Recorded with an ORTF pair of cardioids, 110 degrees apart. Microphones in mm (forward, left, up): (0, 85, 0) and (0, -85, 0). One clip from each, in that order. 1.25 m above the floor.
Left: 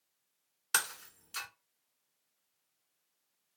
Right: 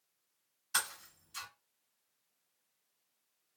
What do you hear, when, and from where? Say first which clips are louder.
0.7 s breaking glass: left 3 dB; 65° left, 1.5 m